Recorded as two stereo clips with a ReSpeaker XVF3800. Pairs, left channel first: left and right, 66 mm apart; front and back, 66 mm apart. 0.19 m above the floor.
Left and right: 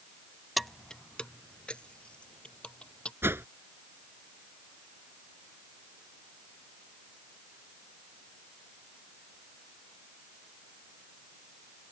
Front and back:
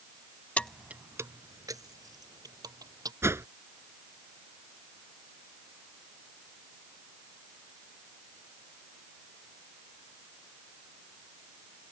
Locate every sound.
0.6 s keys jangling: straight ahead; by 3.1 s 165° left
3.2 s a whoosh: 135° right